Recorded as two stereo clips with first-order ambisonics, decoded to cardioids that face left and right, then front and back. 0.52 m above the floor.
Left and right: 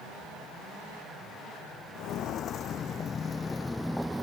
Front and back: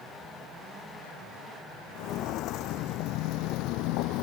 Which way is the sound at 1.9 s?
45° left.